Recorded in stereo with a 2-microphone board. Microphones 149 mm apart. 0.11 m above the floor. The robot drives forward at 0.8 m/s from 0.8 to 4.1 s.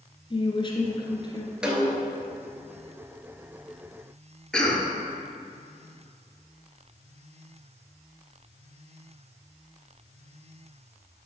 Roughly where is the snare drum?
Centre.